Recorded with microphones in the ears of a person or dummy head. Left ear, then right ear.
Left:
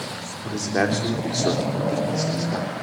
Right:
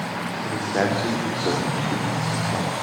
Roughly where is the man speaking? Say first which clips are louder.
Left 1 dB; left.